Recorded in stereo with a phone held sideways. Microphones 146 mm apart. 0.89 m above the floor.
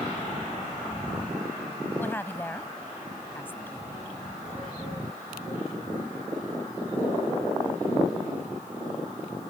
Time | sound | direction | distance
2.0 | a woman speaking | 15° left (ahead or behind) | ?